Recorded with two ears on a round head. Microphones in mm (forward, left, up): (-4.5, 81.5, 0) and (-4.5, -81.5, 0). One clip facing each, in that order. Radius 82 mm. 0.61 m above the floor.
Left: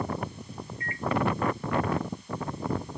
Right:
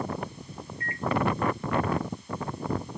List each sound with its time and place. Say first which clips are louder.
0.8 s a microwave: right 1 dB; 70° left (ahead or behind)